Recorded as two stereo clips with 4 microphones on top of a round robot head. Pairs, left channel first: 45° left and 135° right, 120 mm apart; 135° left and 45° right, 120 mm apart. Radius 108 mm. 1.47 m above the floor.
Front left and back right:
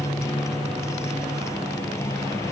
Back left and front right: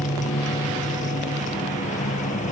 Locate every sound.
0.0 s a motorcycle: 115° left